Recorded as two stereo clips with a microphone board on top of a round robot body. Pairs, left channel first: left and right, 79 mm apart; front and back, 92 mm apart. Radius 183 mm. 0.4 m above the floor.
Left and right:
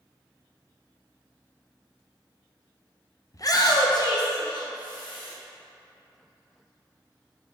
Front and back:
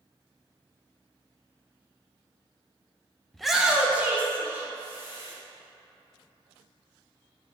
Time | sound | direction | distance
3.3 | a shout | 85° left | 1.0 m